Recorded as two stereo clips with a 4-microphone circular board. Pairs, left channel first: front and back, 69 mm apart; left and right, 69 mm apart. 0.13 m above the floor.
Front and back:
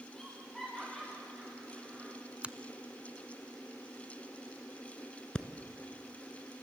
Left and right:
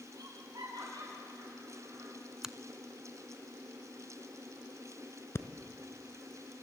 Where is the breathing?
70° left, 1.3 m.